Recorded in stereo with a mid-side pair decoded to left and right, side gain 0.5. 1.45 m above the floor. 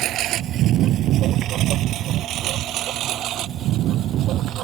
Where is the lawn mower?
70° right.